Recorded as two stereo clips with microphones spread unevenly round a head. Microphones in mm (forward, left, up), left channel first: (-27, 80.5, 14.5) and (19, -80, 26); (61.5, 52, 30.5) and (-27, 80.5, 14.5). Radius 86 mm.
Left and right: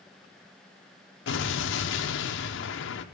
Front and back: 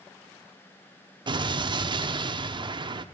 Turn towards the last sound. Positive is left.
turn(degrees=120)